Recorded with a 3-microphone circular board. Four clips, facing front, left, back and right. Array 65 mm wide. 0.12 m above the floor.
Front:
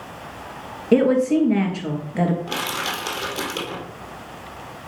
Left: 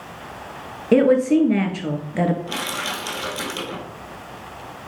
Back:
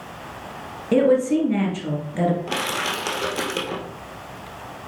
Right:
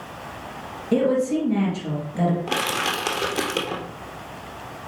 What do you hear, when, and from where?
0.9 s a woman speaking: 75° left, 2.0 m
2.5 s crushing: 115° right, 2.5 m